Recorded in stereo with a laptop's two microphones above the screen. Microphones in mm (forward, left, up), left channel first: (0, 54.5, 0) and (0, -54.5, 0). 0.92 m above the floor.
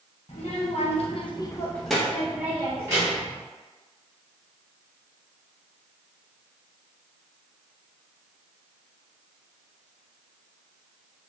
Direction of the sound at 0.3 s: 65° left (ahead or behind).